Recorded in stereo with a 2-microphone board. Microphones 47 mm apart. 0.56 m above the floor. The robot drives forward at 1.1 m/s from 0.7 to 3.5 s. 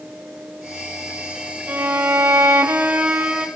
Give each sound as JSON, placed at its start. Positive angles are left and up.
{"t": 1.7, "sound": "a violin", "side_deg": -40, "distance_m": 1.1}